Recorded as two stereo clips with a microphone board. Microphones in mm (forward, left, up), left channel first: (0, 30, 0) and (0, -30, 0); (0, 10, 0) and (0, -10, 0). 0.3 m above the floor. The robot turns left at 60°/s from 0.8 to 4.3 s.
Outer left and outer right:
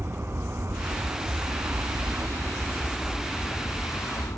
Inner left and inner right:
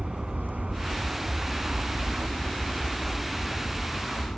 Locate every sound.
0.0 s an aircraft: 55° right; by 4.4 s 95° left